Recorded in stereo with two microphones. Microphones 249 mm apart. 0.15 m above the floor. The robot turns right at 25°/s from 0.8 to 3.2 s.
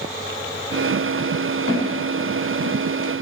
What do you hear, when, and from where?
1.7 s footsteps: 55° right (ahead or behind), 1.7 m; by 2.7 s 70° right (ahead or behind), 1.0 m